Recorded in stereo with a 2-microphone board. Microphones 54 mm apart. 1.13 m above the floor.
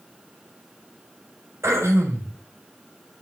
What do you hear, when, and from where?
1.6 s throat clearing: 60° right (ahead or behind), 6 m